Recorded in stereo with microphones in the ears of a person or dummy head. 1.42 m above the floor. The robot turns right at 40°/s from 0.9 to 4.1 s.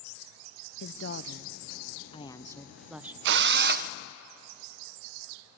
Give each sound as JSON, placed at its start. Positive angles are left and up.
{"t": 0.8, "sound": "a woman speaking", "azimuth_deg": 105, "distance_m": 0.8}
{"t": 3.2, "sound": "a drill", "side_deg": -70, "distance_m": 0.5}